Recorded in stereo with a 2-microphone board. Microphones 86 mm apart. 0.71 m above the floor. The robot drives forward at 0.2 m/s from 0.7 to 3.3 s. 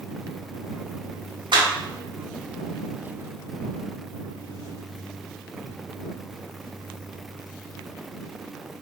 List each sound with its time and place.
1.5 s a clap: 60° right (ahead or behind), 0.8 m